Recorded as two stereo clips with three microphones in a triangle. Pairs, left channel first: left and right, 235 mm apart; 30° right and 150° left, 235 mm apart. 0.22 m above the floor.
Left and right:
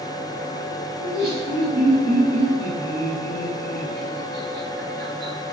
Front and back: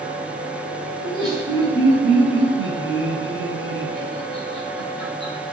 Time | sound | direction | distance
1.0 | laughter | 175° right | 1.1 m